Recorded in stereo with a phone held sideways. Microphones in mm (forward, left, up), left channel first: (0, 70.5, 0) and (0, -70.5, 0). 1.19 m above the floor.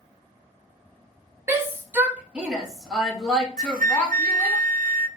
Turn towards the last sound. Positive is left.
turn(degrees=-75)  # may be behind; listen again after turning